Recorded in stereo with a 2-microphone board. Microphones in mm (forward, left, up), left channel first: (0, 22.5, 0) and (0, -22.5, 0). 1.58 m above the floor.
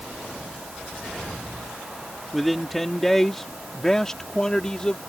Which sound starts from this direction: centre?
A man speaking, at 2.3 s.